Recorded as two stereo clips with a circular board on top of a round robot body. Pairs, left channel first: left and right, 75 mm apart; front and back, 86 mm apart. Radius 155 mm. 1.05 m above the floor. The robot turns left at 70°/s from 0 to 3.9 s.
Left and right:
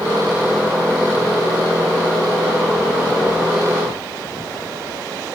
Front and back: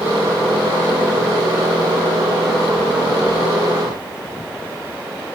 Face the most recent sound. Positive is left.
No sound to turn to.